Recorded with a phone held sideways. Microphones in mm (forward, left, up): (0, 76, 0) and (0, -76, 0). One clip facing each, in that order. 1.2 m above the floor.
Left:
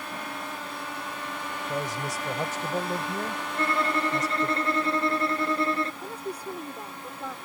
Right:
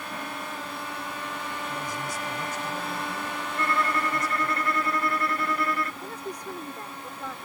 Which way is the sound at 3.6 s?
25° left (ahead or behind).